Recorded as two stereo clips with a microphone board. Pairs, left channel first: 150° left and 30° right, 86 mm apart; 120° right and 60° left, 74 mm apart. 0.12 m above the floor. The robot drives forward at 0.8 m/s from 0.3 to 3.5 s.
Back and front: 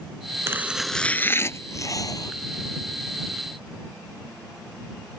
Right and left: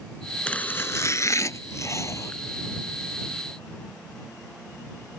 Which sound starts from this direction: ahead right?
Chopping, at 0.5 s.